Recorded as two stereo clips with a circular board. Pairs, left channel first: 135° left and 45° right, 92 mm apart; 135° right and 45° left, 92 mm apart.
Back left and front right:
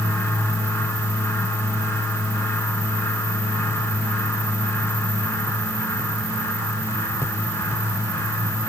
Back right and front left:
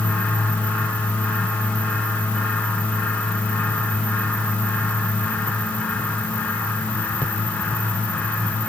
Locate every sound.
Only background noise.